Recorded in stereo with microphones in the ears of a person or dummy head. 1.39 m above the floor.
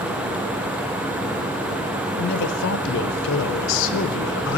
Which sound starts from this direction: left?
A man speaking, at 2.2 s.